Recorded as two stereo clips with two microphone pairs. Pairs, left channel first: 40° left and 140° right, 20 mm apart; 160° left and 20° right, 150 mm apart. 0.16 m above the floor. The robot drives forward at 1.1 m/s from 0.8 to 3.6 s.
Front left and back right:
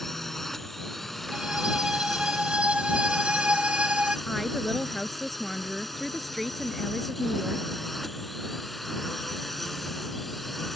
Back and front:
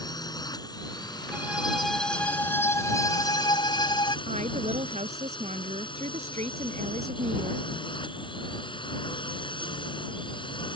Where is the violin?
100° right; by 4.2 s 140° right.